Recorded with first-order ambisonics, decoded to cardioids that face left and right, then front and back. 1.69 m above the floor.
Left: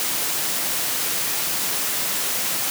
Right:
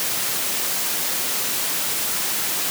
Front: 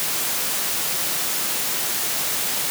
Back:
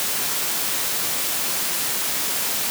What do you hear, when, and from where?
Only background noise.